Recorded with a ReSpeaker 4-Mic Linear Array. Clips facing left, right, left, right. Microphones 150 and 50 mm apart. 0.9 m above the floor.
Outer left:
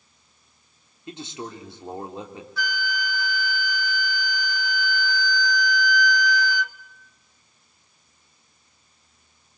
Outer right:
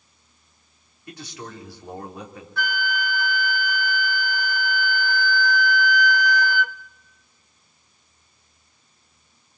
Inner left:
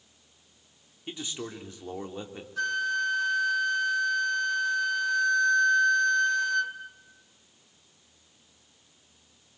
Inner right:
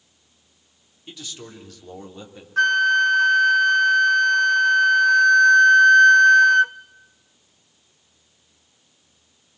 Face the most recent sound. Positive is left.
turn(degrees=-55)  # may be behind; listen again after turning